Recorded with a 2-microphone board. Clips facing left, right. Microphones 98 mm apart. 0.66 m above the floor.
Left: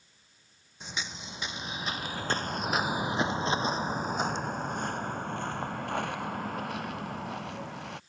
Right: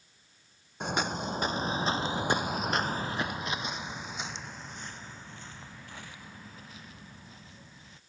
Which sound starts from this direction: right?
Footsteps, at 0.8 s.